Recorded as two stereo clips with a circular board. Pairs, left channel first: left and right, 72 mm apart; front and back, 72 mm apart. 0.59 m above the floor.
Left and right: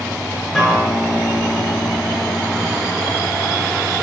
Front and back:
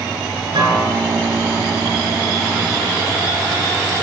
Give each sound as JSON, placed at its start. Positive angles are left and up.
{"t": 0.6, "sound": "a guitar", "azimuth_deg": 170, "distance_m": 6.0}